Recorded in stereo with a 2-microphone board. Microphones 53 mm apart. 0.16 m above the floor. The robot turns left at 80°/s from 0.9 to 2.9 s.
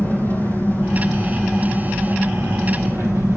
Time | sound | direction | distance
0.0 | an engine running | 60° left | 4 m